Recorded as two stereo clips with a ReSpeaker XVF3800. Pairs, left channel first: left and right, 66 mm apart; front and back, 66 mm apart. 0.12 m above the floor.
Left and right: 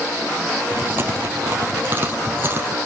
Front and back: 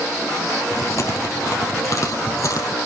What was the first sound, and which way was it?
Chewing, 35° right.